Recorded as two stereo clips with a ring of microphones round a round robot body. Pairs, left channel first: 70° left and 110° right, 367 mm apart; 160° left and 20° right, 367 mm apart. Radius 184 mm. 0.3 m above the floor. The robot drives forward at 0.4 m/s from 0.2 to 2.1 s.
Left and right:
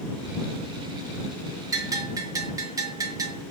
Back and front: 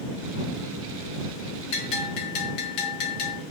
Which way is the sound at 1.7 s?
165° left.